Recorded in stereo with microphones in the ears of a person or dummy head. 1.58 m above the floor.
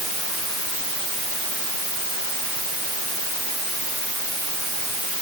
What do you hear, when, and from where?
Only background noise.